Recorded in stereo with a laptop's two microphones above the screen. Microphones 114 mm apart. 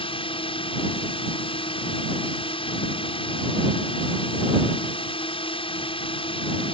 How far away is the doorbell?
No doorbell in this recording.